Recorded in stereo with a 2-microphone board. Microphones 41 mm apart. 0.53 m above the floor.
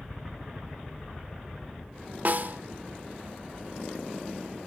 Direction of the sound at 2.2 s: 50° right (ahead or behind).